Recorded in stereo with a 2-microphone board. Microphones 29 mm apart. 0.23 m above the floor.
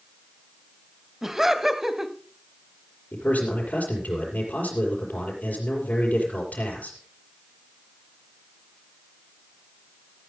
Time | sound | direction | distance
1.2 | laughter | 10° right (ahead or behind) | 1.1 m
3.1 | a man speaking | 70° left (ahead or behind) | 5.5 m